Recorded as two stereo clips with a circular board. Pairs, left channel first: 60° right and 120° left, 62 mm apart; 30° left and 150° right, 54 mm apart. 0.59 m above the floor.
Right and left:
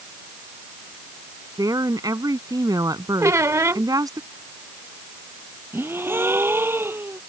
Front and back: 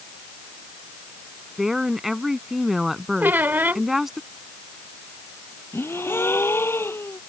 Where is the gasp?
70° left.